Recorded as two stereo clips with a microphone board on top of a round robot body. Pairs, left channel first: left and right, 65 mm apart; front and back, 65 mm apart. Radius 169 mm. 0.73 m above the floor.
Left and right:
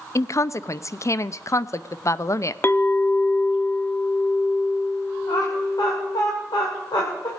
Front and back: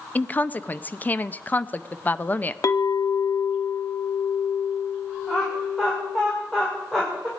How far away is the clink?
About 0.7 m.